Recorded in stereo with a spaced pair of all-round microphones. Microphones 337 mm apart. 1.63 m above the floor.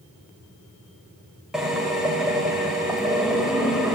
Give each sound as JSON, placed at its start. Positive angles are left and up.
{"t": 1.5, "sound": "a drill", "side_deg": 0, "distance_m": 4.5}